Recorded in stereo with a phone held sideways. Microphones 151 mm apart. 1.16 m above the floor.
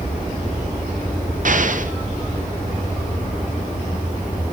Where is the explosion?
60° right (ahead or behind), 0.7 m.